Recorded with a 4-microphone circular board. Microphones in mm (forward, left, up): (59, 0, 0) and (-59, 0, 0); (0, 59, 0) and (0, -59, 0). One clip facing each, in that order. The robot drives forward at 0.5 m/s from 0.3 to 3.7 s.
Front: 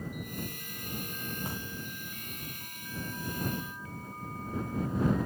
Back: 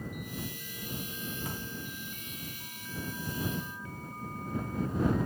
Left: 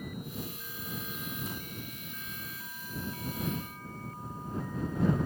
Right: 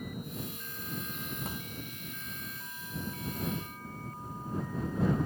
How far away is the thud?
About 8.5 m.